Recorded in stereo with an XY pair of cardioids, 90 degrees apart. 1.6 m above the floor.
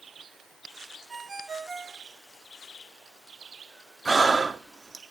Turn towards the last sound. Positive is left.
turn(degrees=-30)